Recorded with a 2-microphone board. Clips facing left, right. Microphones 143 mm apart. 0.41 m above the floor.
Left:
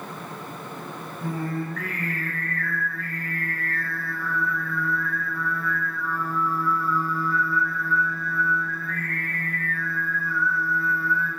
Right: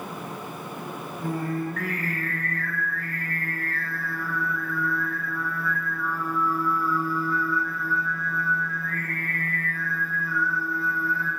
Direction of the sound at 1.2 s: 50° right (ahead or behind).